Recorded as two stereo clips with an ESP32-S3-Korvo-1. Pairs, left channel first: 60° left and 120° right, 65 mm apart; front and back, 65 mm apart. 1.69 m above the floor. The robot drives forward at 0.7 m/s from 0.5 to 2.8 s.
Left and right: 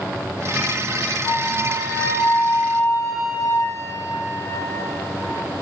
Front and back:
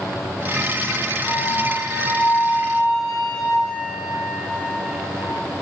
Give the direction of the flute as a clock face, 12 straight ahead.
2 o'clock.